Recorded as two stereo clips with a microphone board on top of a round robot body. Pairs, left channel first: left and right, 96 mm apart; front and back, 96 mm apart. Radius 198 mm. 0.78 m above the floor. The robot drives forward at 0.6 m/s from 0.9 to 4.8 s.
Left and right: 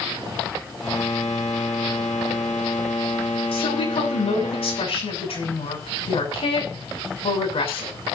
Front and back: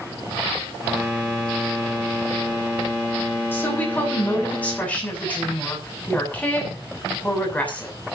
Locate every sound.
3.5 s a woman speaking: 70° left, 7.5 m; by 7.9 s 75° left, 7.5 m